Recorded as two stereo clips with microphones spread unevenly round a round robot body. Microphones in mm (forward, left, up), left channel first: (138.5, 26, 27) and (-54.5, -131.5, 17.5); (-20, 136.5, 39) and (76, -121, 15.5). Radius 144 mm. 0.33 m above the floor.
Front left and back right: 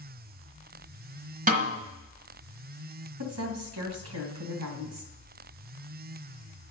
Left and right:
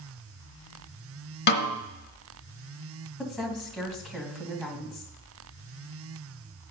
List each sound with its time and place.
1.5 s a snare drum: 165° left, 1.1 m
3.2 s a woman speaking: 160° right, 2 m